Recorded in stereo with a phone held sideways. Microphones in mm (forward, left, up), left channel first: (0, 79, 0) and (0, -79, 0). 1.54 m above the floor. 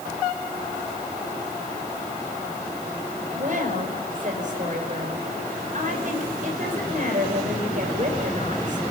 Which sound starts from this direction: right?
A woman speaking, at 3.3 s.